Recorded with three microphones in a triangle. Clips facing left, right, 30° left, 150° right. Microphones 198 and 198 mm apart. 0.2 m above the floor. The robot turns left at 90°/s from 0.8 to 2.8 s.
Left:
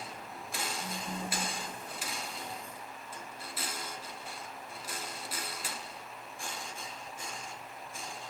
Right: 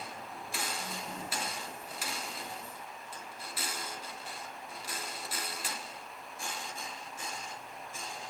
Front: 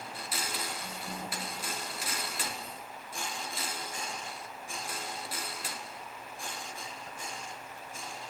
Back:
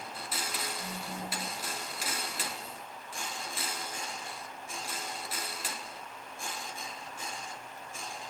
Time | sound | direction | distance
0.8 | a phone buzzing | 175° left | 1.5 m